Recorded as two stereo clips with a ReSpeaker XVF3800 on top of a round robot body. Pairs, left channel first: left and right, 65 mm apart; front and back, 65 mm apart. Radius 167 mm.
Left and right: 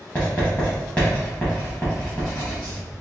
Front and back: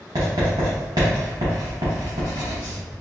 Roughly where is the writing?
Behind.